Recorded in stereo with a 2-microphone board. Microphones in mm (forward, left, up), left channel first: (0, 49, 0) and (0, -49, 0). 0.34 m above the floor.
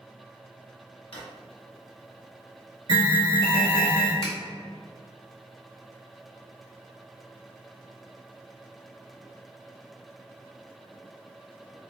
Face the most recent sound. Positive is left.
turn(degrees=-45)  # may be behind; listen again after turning